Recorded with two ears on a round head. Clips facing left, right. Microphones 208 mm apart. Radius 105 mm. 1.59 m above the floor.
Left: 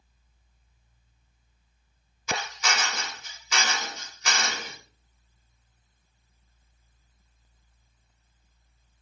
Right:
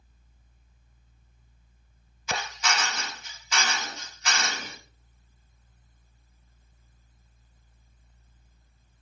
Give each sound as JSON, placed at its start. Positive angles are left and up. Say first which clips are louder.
{"t": 2.3, "sound": "a drill", "louder": "even", "side_deg": 80, "distance_m": 2.0}